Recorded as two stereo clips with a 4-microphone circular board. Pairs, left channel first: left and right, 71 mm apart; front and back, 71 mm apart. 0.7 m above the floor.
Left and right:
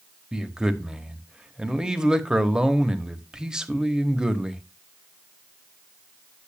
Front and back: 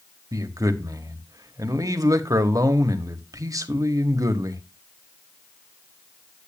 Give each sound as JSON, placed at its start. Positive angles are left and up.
{"t": 0.3, "sound": "a man speaking", "azimuth_deg": -170, "distance_m": 1.3}